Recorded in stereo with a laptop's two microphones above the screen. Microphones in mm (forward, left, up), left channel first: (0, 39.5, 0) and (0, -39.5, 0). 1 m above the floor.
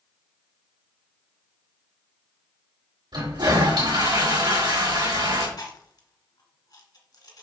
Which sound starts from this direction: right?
A toilet flushing, at 3.1 s.